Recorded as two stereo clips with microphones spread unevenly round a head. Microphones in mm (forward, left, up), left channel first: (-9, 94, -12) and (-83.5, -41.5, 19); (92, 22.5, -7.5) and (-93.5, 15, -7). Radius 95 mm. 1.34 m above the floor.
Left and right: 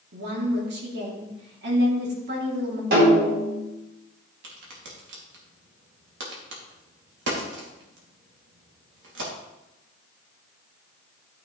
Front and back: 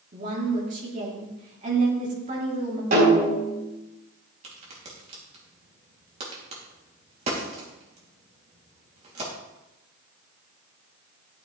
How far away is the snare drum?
About 4 m.